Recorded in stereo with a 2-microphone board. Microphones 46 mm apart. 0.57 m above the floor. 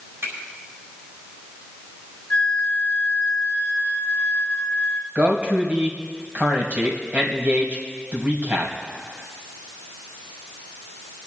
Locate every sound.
0.2 s a finger snap: 75° right (ahead or behind), 5 m
2.3 s a flute: 25° left (ahead or behind), 1.5 m
5.2 s a man speaking: 40° right (ahead or behind), 2.5 m